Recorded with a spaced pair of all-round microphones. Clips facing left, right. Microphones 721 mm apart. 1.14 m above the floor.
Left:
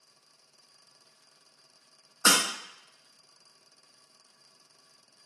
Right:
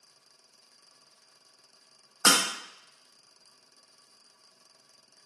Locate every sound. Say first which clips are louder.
2.2 s breaking glass: right 1 dB; 25° right (ahead or behind), 0.8 m